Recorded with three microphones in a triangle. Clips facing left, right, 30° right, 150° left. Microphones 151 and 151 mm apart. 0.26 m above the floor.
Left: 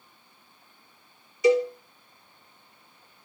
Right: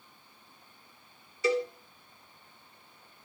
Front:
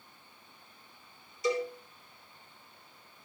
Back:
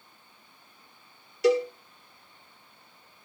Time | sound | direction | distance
1.4 | a cowbell | 165° left | 2.5 m